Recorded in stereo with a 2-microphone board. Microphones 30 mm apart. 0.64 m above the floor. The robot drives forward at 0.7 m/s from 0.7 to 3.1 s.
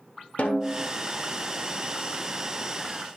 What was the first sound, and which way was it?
A snare drum, 50° left (ahead or behind).